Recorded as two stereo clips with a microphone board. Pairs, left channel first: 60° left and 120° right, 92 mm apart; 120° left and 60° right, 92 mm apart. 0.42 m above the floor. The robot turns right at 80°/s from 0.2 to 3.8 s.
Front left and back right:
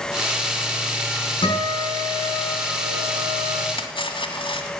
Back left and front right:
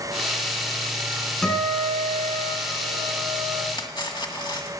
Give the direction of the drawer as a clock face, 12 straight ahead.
I don't hear a drawer.